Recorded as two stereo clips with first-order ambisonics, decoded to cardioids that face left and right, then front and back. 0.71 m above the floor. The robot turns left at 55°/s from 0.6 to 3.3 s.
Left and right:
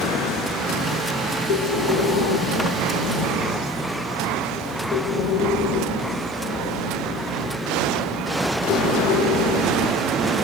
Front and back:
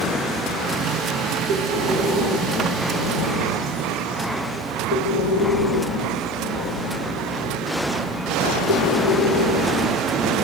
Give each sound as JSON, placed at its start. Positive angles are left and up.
{"t": 1.5, "sound": "breathing", "azimuth_deg": 135, "distance_m": 1.3}